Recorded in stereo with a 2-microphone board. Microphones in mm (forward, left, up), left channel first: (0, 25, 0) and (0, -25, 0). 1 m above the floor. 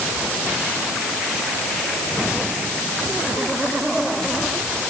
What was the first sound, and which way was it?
Only background noise.